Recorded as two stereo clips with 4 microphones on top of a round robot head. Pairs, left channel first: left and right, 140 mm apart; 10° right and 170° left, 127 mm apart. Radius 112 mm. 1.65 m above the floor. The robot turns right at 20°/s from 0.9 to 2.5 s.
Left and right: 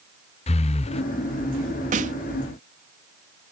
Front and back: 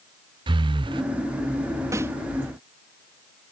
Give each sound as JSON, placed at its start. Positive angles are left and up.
{"t": 0.5, "sound": "breathing", "azimuth_deg": 125}
{"t": 1.9, "sound": "a snare drum", "azimuth_deg": -115}